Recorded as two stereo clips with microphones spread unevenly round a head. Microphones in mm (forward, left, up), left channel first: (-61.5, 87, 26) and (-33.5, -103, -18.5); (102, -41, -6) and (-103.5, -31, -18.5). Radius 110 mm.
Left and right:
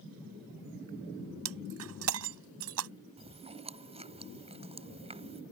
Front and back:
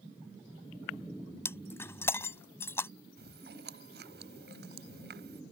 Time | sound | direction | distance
1.4 | breaking glass | 80° right | ?
3.2 | chewing | 145° right | ?